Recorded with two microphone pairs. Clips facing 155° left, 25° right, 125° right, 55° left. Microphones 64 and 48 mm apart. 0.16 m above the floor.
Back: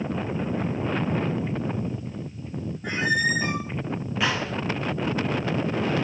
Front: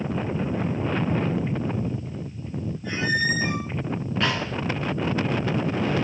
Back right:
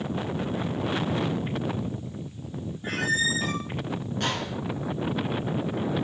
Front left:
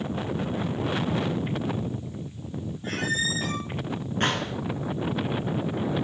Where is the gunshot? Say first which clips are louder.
Back 1 dB, front left 4 dB; 80° left, 1.5 m.